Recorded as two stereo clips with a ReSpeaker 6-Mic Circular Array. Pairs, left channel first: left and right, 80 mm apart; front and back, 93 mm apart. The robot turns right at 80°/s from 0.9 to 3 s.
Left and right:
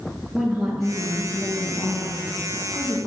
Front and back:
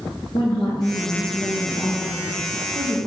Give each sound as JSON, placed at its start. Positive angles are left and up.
{"t": 0.3, "sound": "a woman speaking", "azimuth_deg": -5, "distance_m": 2.0}